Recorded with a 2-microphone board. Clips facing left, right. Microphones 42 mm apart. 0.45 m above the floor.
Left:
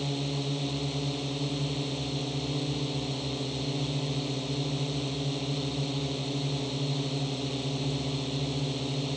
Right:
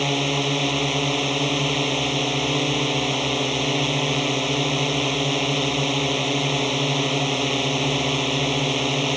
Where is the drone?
70° right (ahead or behind).